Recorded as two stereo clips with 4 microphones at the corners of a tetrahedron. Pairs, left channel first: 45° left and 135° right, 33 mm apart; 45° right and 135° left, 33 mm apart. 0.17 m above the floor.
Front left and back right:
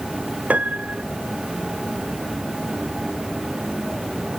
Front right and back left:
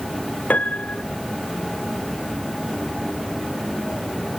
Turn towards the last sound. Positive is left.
turn(degrees=-95)